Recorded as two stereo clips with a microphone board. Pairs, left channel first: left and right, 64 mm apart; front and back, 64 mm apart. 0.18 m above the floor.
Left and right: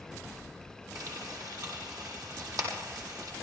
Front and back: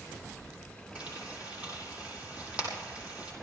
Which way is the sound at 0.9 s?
110° right.